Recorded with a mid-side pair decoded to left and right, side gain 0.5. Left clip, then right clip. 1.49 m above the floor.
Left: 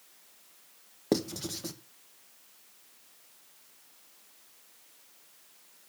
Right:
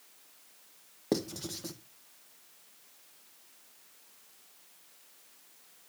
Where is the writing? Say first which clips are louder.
Left 3 dB; 15° left, 1.0 m.